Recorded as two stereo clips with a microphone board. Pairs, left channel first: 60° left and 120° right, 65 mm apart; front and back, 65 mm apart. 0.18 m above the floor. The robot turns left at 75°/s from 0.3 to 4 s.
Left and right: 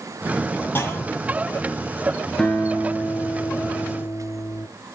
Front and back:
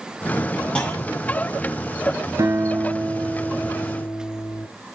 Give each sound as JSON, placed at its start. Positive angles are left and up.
{"t": 0.8, "sound": "a clunk", "azimuth_deg": 60, "distance_m": 1.9}
{"t": 2.4, "sound": "a guitar", "azimuth_deg": 145, "distance_m": 1.9}